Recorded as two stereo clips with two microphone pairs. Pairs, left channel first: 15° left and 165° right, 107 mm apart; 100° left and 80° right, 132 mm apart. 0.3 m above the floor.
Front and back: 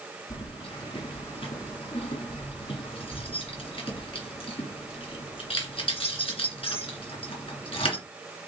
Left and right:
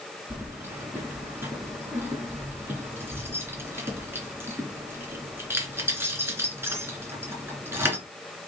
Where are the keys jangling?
10° right, 2.5 m.